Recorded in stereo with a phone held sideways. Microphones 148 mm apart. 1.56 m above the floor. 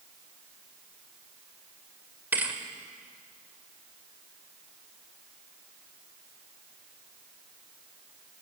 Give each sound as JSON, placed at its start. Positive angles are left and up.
{"t": 2.3, "sound": "a thud", "side_deg": -10, "distance_m": 1.9}